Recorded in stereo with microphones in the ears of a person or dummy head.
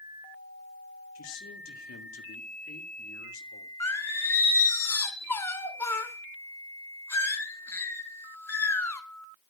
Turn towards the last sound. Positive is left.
turn(degrees=10)  # may be behind; listen again after turning